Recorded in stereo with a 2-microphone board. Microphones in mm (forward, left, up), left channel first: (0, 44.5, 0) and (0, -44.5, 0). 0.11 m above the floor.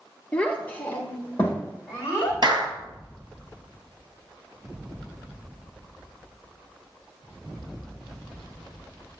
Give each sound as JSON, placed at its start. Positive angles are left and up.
{"t": 0.3, "sound": "a child speaking", "side_deg": 15, "distance_m": 1.2}
{"t": 2.4, "sound": "a clap", "side_deg": -55, "distance_m": 1.6}